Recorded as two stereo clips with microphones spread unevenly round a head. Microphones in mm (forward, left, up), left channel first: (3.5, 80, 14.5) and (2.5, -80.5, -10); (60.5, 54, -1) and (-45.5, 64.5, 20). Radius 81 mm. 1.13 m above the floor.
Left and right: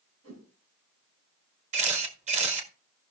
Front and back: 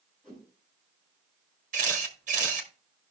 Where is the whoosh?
100° right, 6 m.